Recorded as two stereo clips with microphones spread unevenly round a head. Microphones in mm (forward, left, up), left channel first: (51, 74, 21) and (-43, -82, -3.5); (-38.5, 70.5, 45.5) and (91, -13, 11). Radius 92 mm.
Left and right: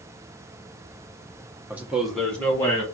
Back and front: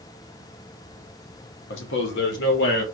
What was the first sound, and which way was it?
A man speaking, 160° left.